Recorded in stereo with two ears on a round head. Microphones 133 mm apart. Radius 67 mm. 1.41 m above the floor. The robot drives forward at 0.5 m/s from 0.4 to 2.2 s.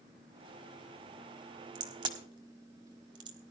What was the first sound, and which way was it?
A crack, 30° right (ahead or behind).